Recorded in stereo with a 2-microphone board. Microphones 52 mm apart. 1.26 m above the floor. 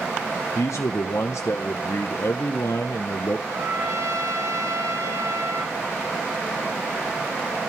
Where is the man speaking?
70° left (ahead or behind), 0.8 m.